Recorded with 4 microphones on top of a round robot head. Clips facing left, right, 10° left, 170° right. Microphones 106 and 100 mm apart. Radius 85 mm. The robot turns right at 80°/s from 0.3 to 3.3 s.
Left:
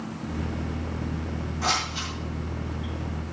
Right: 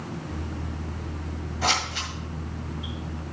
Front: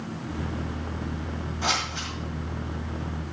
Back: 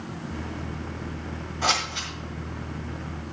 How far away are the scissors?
About 1.8 m.